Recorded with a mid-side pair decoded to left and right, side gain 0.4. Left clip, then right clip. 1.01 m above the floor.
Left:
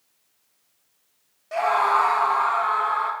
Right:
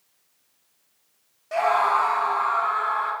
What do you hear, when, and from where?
1.5 s a scream: 10° right, 0.6 m; by 3.1 s 70° left, 1.3 m